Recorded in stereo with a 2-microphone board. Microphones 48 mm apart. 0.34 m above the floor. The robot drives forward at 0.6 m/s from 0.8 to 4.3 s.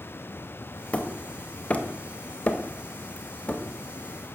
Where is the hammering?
25° left (ahead or behind), 1.6 m.